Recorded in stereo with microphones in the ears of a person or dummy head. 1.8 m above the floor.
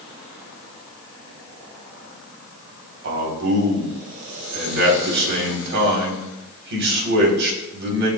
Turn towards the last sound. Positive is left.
turn(degrees=-60)  # may be behind; listen again after turning